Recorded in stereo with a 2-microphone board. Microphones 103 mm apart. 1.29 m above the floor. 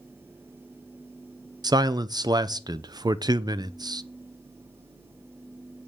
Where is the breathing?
No breathing in this recording.